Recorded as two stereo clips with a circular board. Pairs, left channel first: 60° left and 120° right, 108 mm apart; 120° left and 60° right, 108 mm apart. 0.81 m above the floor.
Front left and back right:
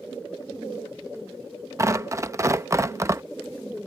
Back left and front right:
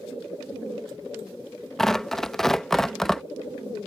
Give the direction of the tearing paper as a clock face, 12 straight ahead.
5 o'clock.